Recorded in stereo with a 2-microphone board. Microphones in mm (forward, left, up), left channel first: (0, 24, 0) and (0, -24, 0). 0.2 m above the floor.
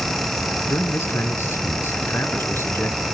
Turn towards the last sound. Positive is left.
turn(degrees=45)  # may be behind; listen again after turning